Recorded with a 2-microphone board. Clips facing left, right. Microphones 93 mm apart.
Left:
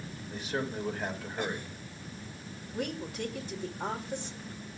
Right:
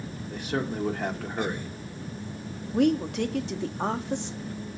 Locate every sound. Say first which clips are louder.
0.3 s a man speaking: right 4 dB; 60° right (ahead or behind), 2.5 m
2.7 s a woman speaking: right 13 dB; 70° right (ahead or behind), 1.6 m